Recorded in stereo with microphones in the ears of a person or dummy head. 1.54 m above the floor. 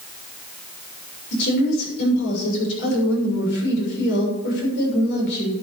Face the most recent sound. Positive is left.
turn(degrees=70)  # may be behind; listen again after turning